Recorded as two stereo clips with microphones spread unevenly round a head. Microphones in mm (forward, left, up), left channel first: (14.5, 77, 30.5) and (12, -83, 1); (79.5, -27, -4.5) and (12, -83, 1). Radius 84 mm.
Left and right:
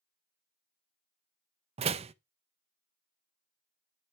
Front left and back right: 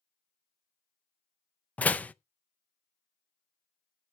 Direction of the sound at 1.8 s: 35° right.